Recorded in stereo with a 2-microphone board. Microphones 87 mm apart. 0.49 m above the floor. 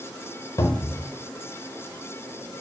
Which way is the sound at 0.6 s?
50° left (ahead or behind).